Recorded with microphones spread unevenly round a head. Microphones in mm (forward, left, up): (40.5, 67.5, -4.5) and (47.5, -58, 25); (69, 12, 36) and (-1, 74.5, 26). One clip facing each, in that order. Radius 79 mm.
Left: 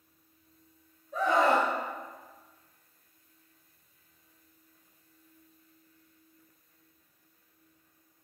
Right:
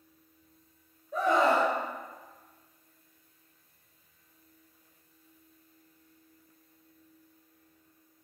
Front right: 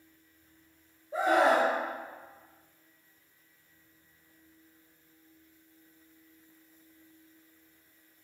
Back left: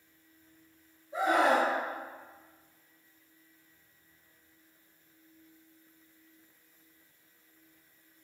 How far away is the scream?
About 1.4 m.